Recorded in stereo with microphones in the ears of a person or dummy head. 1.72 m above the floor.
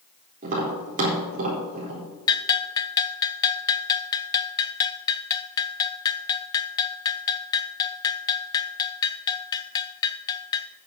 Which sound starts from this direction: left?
A bell, at 2.3 s.